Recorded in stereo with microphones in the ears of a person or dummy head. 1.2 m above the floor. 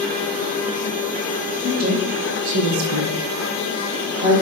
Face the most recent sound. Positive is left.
turn(degrees=-30)  # may be behind; listen again after turning